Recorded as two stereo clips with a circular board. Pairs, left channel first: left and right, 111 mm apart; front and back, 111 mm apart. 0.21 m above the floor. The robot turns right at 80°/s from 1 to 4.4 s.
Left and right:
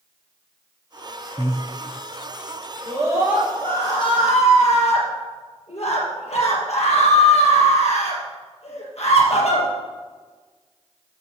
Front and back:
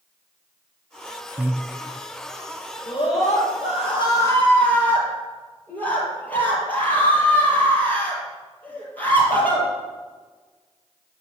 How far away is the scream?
About 5 m.